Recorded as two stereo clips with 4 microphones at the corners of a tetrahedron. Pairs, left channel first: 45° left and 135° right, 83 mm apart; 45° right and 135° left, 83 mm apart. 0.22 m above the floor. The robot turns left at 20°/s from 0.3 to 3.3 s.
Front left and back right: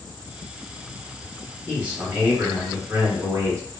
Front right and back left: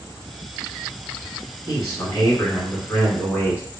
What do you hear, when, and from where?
1.7 s a man speaking: 65° right, 1.5 m; by 3.6 s 100° right, 1.5 m